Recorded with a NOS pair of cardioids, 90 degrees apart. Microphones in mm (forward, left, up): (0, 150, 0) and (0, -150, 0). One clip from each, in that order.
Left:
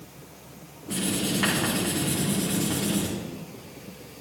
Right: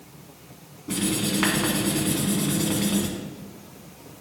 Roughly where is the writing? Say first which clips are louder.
Right 2 dB; ahead right.